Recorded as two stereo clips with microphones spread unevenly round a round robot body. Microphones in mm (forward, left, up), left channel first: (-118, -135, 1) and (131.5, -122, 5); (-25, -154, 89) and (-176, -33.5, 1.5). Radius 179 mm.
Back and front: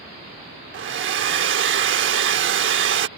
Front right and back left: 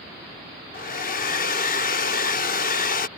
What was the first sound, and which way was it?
A hair dryer, 25° left.